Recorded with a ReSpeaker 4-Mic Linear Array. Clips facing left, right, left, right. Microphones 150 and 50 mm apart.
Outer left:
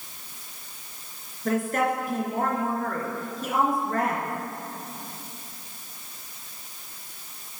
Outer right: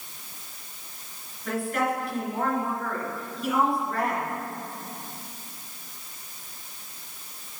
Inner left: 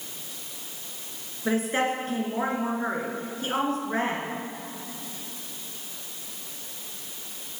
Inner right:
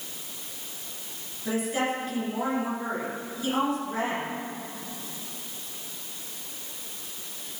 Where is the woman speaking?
45° left (ahead or behind), 3 m.